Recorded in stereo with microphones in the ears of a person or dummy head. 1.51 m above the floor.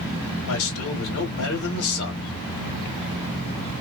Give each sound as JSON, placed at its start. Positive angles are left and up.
{"t": 0.5, "sound": "a man speaking", "side_deg": 80, "distance_m": 1.4}